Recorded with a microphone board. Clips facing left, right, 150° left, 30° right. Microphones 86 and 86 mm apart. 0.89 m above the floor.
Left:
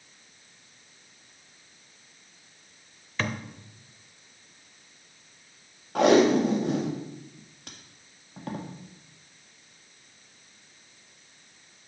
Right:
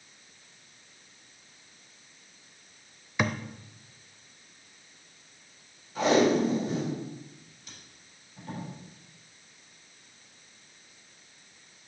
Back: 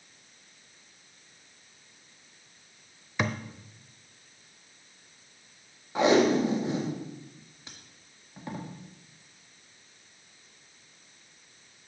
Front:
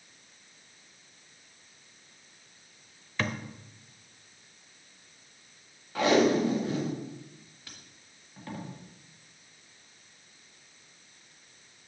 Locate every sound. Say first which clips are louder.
3.2 s a thud: right 2 dB, back 2 dB; 150° right, 0.7 m
6.0 s tape being pulled: left 4 dB, back 1 dB; 85° left, 1.6 m